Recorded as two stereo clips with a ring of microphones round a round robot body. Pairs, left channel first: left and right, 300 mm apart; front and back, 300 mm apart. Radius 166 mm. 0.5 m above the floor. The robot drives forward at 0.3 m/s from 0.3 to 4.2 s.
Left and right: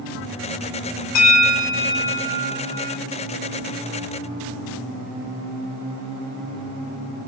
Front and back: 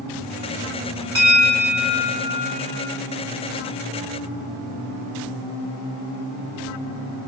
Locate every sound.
1.1 s a bell: 80° left, 2.5 m; by 3.0 s 95° left, 2.5 m